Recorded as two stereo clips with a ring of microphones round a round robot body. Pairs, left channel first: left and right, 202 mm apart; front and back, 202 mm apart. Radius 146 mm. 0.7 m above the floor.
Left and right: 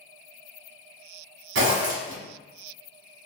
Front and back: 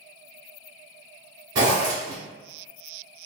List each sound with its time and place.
1.6 s a zipper: 105° right, 0.9 m